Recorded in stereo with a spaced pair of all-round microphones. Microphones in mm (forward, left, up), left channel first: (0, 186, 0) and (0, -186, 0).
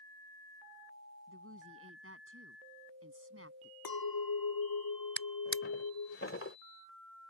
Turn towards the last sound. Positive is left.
turn(degrees=35)  # may be behind; listen again after turning